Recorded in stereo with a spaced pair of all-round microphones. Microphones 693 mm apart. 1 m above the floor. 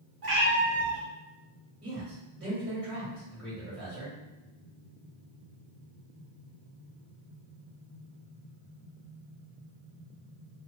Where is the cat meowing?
30° right (ahead or behind), 0.9 m.